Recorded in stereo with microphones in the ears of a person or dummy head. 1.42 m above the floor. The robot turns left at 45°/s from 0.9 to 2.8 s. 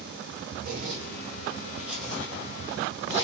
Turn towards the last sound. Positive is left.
turn(degrees=35)  # may be behind; listen again after turning